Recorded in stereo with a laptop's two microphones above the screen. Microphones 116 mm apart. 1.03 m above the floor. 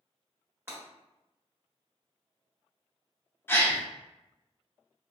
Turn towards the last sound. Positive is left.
turn(degrees=20)  # may be behind; listen again after turning